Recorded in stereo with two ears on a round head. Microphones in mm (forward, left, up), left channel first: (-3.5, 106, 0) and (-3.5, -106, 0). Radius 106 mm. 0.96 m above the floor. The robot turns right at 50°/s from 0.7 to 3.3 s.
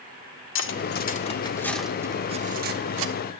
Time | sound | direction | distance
0.6 | cutlery clinking | 55° left (ahead or behind) | 1.6 m